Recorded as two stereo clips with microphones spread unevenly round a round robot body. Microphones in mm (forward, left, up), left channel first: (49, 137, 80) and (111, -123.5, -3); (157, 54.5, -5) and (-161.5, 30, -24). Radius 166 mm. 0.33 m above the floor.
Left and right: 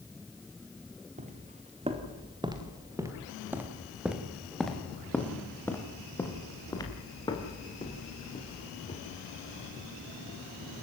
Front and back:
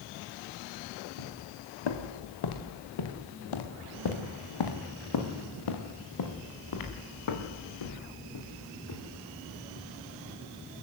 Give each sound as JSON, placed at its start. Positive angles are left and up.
{"t": 1.2, "sound": "footsteps", "azimuth_deg": -10, "distance_m": 3.5}